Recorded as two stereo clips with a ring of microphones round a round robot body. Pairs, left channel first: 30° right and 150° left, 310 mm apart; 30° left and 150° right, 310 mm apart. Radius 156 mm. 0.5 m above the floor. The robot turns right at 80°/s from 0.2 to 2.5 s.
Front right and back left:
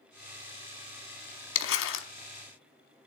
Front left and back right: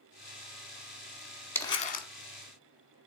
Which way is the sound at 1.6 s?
50° right.